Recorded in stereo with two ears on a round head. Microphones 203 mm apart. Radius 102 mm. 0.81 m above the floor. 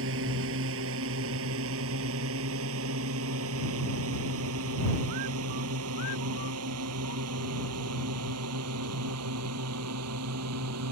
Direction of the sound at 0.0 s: 60° right (ahead or behind).